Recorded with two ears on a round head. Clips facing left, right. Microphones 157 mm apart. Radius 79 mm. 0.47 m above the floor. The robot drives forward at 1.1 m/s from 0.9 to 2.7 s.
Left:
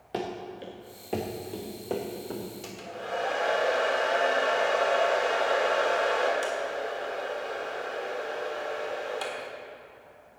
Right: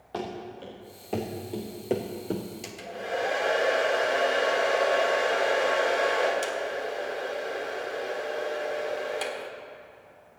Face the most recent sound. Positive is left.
turn(degrees=-20)  # may be behind; listen again after turning